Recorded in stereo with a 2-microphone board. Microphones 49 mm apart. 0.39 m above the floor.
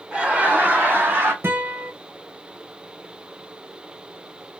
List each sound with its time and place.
0.1 s laughter: 20° right (ahead or behind), 1.5 m; by 1.3 s 50° right (ahead or behind), 2 m
1.4 s a guitar: 55° right (ahead or behind), 1.3 m